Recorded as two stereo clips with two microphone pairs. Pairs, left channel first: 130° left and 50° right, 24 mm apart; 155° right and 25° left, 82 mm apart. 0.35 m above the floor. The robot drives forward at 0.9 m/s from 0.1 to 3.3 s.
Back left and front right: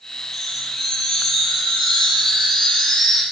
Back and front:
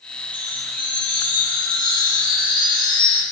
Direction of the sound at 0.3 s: 155° right.